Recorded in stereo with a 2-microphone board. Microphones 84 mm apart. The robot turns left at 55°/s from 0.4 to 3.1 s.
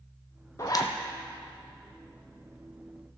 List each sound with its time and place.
0.6 s a zipper: 40° left (ahead or behind), 1.0 m; by 0.9 s 60° left (ahead or behind), 1.0 m